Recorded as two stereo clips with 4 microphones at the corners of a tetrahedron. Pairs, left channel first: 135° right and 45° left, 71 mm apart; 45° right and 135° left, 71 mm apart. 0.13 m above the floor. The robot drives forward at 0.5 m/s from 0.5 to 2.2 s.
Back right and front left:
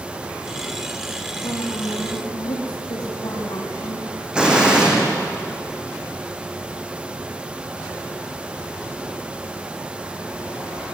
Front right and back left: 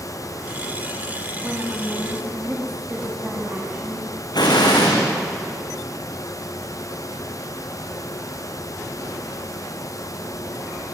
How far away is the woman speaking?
About 8 m.